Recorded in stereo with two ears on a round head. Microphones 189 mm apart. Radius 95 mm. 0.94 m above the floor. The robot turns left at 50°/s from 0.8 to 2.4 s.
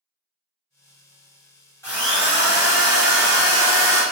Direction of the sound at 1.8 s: 10° left (ahead or behind).